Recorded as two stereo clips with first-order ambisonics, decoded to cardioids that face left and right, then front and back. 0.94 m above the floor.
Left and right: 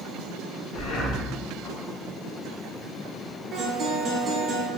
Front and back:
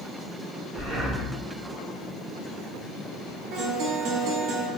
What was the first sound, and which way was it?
Breathing, 100° left.